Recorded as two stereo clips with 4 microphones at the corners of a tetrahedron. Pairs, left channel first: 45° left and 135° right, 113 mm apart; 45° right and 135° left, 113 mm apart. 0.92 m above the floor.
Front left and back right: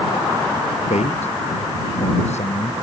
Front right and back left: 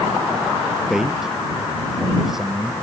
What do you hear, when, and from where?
0.9 s a man speaking: 50° left